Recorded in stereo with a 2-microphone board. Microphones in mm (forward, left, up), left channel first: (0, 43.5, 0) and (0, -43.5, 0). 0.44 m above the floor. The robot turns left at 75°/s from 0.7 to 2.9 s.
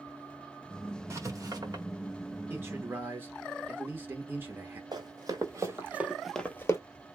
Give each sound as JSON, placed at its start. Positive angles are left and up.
{"t": 1.1, "sound": "writing", "side_deg": -30, "distance_m": 1.2}
{"t": 2.5, "sound": "a man speaking", "side_deg": -25, "distance_m": 0.7}
{"t": 4.9, "sound": "running footsteps", "side_deg": -50, "distance_m": 1.3}